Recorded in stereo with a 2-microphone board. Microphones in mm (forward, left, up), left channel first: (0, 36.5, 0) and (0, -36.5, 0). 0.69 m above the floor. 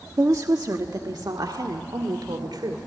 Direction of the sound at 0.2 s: 45° right (ahead or behind).